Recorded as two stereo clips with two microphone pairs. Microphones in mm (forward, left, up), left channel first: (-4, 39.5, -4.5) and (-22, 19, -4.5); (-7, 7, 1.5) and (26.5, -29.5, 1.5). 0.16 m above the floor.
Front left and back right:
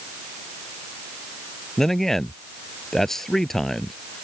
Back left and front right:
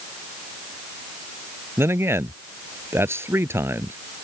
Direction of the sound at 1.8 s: 25° right.